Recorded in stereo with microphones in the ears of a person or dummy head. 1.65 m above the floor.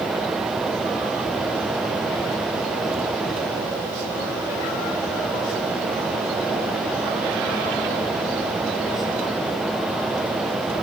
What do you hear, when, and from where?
Only background noise.